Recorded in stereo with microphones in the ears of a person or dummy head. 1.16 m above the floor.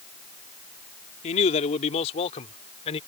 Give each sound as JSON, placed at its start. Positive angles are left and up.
{"t": 1.2, "sound": "a man speaking", "side_deg": 35}